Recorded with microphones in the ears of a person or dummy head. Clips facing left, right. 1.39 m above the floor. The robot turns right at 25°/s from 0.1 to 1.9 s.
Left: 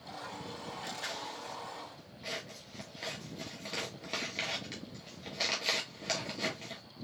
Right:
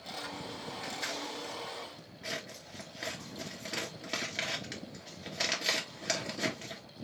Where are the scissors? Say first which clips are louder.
Right 3 dB; 40° right (ahead or behind), 1.5 m; by 6.8 s 10° right (ahead or behind), 1.5 m.